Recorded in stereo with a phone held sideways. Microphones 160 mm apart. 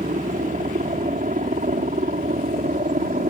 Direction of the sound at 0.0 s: 55° right (ahead or behind).